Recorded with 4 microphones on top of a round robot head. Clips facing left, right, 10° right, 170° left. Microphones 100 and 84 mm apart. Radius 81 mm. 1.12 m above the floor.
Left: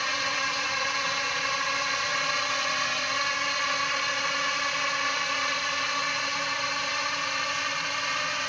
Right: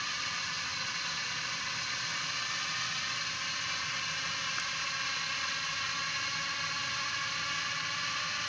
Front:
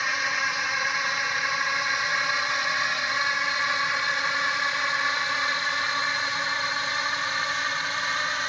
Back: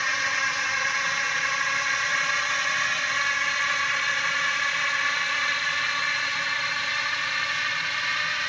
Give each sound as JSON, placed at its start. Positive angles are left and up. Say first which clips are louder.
{"t": 0.0, "sound": "a drone", "louder": "left 10 dB, even", "azimuth_deg": 75}